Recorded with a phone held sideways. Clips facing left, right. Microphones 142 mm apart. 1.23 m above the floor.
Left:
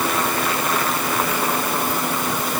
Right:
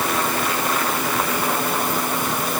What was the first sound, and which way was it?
Only background noise.